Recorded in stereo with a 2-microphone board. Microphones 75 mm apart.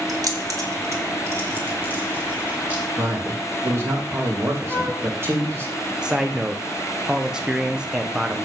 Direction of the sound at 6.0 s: 10° right (ahead or behind).